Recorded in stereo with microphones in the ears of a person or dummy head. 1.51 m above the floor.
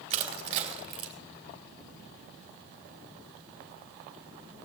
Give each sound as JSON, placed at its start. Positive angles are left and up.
{"t": 0.1, "sound": "crushing", "side_deg": -35, "distance_m": 3.0}